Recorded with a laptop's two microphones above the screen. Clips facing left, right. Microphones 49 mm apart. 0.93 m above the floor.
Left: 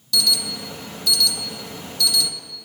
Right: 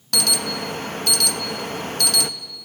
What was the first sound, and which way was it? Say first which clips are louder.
An alarm: even; 60° right (ahead or behind).